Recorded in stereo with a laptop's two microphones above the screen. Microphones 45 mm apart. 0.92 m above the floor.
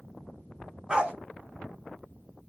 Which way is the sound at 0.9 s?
20° right (ahead or behind).